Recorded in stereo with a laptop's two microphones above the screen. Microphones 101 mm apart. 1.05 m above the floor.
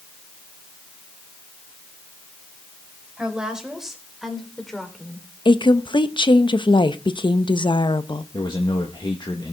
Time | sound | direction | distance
3.2 | a woman speaking | 10° right (ahead or behind) | 4.5 m
5.5 | a woman speaking | 50° left (ahead or behind) | 0.9 m
8.3 | a man speaking | 45° left (ahead or behind) | 1.7 m